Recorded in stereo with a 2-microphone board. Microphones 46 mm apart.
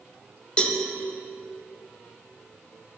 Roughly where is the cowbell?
Left.